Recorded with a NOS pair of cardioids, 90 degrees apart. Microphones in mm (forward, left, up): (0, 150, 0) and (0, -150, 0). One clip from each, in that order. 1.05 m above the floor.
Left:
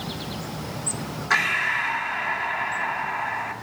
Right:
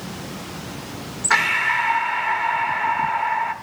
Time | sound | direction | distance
1.3 | breathing | 20° right | 1.2 m